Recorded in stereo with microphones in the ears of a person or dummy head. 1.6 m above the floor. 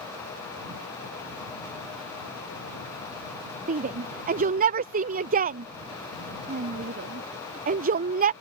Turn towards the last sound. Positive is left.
turn(degrees=-40)  # may be behind; listen again after turning